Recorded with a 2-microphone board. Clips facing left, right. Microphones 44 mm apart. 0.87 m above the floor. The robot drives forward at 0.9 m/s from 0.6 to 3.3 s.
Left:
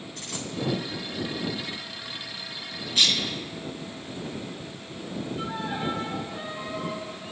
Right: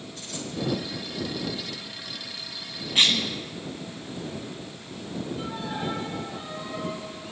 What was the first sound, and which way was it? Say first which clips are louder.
A dropped coin: even; 70° left (ahead or behind).